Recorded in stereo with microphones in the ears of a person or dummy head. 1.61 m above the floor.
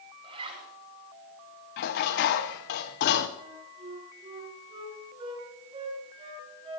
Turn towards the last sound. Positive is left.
turn(degrees=-30)  # may be behind; listen again after turning